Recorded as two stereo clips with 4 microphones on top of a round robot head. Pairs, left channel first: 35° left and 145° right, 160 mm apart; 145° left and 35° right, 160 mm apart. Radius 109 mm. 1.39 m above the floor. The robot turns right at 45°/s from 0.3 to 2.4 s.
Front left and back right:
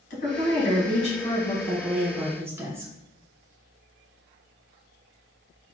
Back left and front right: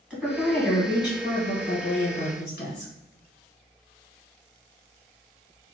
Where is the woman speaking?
45° left, 1.8 m; by 2.9 s 140° left, 1.8 m.